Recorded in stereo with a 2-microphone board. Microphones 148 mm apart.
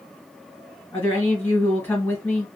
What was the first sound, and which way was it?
A woman speaking, 15° left (ahead or behind).